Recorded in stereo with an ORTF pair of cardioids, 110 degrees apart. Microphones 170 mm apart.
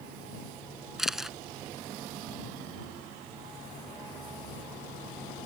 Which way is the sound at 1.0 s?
Straight ahead.